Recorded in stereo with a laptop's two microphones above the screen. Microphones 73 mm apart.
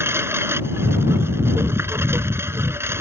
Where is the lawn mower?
35° right (ahead or behind).